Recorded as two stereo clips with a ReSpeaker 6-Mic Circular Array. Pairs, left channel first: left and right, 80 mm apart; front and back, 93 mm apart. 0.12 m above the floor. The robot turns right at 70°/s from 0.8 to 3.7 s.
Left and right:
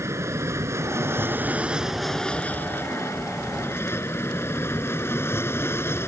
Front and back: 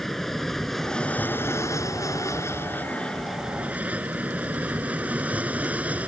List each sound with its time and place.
0.0 s an aircraft: 85° right; by 6.1 s 115° left